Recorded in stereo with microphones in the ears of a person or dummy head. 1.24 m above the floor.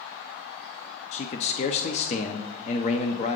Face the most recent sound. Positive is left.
turn(degrees=35)  # may be behind; listen again after turning